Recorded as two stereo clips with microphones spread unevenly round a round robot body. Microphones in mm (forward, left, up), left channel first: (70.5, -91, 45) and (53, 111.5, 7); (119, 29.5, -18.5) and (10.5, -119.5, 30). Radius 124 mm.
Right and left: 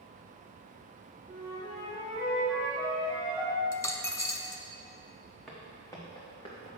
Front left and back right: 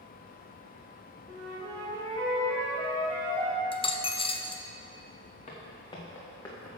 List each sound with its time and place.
1.3 s a flute: 160° right, 1.8 m
3.7 s a dropped coin: 15° right, 0.7 m
5.5 s footsteps: straight ahead, 2.5 m; by 6.7 s 25° right, 3 m